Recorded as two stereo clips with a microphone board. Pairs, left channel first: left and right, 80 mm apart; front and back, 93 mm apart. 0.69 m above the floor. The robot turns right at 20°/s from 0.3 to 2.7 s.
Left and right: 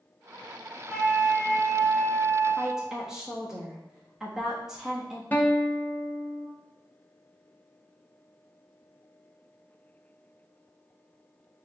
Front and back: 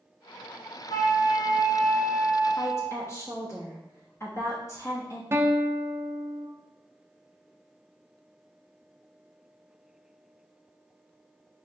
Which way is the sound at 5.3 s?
145° left.